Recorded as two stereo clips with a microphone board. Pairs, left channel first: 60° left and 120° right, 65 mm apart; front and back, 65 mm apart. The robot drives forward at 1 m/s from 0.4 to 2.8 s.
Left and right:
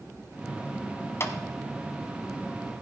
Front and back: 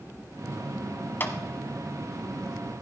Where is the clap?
40° left, 1.3 m; by 1.3 s 45° left, 1.2 m.